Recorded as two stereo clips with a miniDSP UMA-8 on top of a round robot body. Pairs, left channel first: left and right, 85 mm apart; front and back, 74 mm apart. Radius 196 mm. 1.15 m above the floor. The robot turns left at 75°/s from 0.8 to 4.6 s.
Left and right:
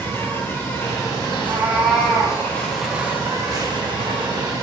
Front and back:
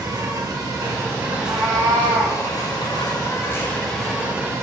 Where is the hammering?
I don't hear hammering.